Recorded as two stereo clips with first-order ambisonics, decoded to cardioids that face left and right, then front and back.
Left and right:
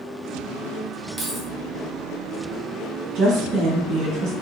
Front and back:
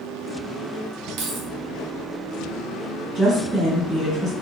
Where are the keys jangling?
170° right, 0.6 m.